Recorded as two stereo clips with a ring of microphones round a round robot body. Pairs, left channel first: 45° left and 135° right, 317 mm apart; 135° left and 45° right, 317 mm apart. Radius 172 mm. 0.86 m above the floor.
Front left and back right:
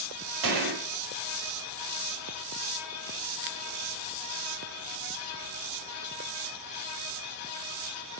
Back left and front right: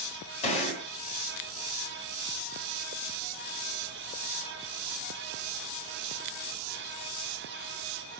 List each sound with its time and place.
0.4 s a gunshot: 155° right, 5.5 m